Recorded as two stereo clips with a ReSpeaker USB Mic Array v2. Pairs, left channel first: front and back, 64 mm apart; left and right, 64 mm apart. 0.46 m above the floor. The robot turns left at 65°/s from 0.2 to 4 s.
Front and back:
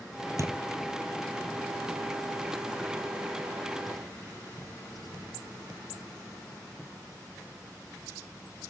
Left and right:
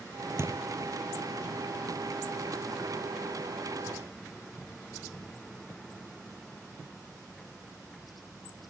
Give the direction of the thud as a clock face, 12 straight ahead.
5 o'clock.